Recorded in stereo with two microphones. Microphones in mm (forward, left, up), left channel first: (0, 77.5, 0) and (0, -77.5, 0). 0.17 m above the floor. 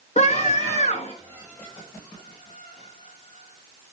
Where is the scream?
50° left (ahead or behind), 2.5 m.